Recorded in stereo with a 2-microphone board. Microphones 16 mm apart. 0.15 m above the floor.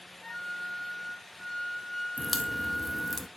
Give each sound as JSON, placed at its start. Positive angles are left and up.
{"t": 0.2, "sound": "a flute", "side_deg": 15, "distance_m": 2.0}
{"t": 2.2, "sound": "a crack", "side_deg": 0, "distance_m": 0.8}